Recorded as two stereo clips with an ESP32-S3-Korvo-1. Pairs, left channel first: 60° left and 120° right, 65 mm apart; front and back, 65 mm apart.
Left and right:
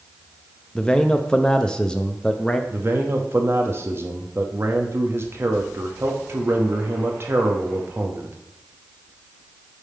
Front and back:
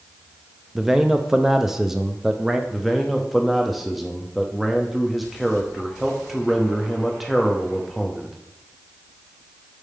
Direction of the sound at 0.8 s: 110° left.